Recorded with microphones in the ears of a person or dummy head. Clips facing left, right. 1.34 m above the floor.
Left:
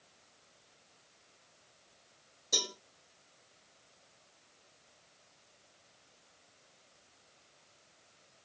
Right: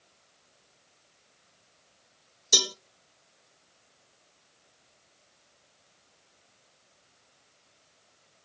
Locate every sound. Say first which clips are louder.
2.5 s a cowbell: right 7 dB; 85° right, 0.5 m